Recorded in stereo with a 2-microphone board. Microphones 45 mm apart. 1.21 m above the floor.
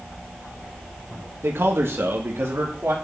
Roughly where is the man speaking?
Right.